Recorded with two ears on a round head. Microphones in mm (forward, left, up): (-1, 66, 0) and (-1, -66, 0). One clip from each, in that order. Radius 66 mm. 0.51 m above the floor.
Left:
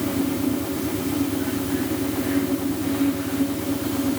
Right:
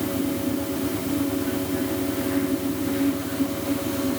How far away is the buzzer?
I don't hear a buzzer.